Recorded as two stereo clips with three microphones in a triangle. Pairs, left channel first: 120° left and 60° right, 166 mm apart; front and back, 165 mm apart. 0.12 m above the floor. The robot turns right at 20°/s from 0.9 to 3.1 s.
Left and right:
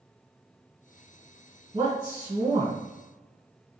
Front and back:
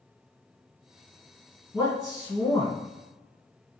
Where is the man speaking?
90° right, 1.8 m; by 2.8 s 70° right, 1.8 m.